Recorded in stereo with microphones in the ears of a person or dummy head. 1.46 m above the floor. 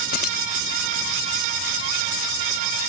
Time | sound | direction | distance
0.1 | keys jangling | 35° left (ahead or behind) | ?